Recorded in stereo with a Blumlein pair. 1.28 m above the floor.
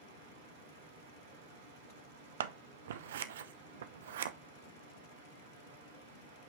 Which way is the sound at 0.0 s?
60° right.